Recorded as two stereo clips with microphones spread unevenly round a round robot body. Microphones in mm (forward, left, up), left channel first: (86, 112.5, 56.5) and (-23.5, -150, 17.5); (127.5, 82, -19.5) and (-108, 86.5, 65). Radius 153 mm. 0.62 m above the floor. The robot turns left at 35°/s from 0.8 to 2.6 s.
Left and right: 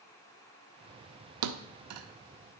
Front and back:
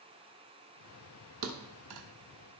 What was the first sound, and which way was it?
A thud, 130° right.